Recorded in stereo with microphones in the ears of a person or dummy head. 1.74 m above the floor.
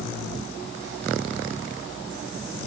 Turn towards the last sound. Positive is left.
No sound to turn to.